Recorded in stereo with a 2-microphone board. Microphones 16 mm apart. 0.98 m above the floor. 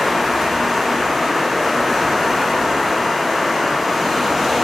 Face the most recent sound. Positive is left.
turn(degrees=-10)  # may be behind; listen again after turning